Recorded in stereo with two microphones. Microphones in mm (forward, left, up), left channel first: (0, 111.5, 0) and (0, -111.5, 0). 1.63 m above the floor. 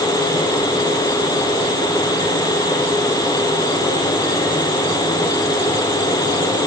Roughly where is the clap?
No clap in this recording.